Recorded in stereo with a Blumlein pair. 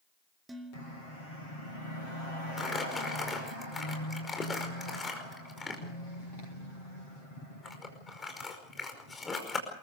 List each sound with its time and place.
0.5 s dishes clattering: 10° right, 3 m
2.6 s crumpling: 10° left, 5 m